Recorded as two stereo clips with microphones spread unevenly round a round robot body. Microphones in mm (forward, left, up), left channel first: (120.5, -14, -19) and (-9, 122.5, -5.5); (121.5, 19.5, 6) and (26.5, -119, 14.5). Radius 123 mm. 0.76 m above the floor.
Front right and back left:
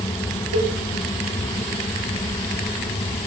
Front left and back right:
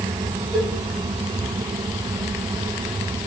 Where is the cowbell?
130° left, 2.5 m.